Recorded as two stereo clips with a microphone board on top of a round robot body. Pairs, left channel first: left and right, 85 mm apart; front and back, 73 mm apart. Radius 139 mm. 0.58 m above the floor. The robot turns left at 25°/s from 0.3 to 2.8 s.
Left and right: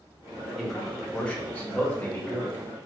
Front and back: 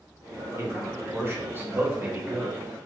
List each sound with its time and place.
0.6 s a man speaking: straight behind, 1.1 m; by 2.6 s 130° left, 1.1 m